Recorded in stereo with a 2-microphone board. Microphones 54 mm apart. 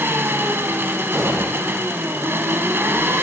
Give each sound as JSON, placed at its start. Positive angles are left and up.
{"t": 0.0, "sound": "an engine running", "side_deg": -45, "distance_m": 1.3}
{"t": 1.1, "sound": "an explosion", "side_deg": -45, "distance_m": 2.5}